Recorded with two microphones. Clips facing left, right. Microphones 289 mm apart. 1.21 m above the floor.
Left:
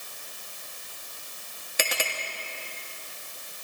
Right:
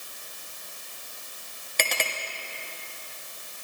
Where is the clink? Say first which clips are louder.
Even; 5° left (ahead or behind), 1.6 m.